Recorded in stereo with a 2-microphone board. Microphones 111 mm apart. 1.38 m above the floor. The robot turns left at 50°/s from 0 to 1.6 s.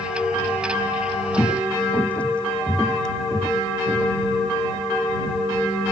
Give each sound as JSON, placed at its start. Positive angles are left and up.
{"t": 1.4, "sound": "footsteps", "side_deg": 30}